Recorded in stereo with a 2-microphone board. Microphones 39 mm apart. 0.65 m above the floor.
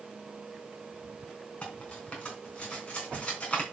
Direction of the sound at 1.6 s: 30° left (ahead or behind).